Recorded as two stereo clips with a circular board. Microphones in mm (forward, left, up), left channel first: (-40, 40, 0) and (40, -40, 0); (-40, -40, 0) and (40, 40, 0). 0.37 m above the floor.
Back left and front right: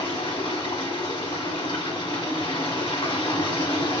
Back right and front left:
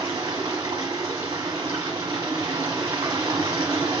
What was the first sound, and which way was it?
Running water, 95° left.